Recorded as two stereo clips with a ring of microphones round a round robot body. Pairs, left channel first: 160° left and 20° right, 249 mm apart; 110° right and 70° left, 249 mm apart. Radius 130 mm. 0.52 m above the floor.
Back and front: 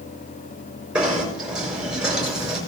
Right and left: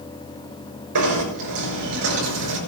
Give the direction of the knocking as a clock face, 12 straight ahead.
10 o'clock.